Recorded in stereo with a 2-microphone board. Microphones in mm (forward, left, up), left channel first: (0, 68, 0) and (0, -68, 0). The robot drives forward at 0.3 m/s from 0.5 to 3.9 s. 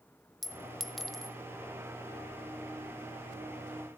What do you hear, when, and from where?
0.4 s a clink: centre (ahead or behind), 0.7 m